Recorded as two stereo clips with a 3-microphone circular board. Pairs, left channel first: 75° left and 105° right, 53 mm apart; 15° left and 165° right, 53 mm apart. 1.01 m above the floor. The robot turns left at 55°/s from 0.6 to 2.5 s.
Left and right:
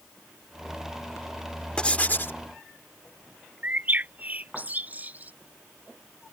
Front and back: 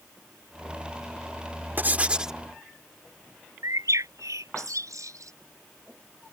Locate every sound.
1.8 s writing: 145° left; by 2.4 s 110° left
3.6 s a bird: 165° right